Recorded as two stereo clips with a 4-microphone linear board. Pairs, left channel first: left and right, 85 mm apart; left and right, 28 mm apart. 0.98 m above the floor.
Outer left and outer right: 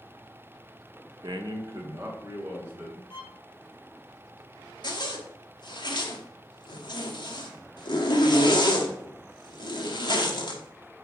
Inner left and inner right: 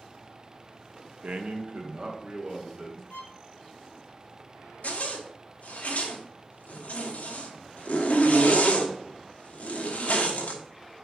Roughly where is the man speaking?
Right.